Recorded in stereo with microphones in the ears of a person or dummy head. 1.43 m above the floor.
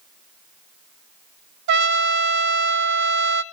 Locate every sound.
1.7 s a trumpet: 60° right (ahead or behind), 0.6 m